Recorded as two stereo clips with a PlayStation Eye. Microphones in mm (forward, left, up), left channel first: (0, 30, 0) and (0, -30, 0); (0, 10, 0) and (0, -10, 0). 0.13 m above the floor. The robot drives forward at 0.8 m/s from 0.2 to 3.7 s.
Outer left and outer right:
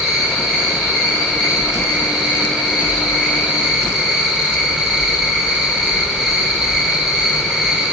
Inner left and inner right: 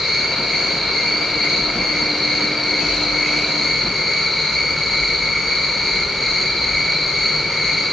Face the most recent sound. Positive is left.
turn(degrees=-10)  # may be behind; listen again after turning